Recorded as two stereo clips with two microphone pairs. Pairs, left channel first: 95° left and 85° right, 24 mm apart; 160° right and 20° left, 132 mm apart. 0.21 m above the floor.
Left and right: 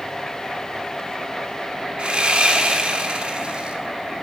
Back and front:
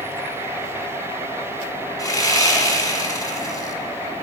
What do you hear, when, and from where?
2.0 s sawing: 110° right, 1.1 m